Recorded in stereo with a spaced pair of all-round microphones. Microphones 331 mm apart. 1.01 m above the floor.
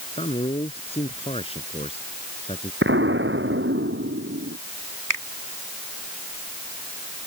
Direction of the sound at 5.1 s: 70° right (ahead or behind).